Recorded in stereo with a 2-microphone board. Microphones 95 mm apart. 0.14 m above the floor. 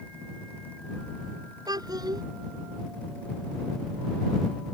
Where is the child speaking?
45° right (ahead or behind).